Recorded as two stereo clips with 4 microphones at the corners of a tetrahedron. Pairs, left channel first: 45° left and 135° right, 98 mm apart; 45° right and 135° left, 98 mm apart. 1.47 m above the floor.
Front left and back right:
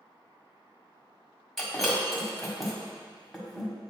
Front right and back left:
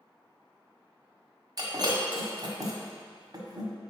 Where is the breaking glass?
130° left, 1.7 m.